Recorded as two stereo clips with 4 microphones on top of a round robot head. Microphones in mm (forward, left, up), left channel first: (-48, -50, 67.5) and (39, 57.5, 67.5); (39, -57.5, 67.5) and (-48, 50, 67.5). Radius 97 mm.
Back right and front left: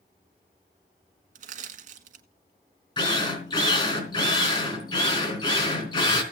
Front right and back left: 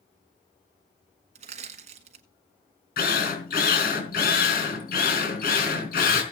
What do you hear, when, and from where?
1.4 s crushing: 85° left, 1.4 m
3.0 s a drill: 70° right, 4 m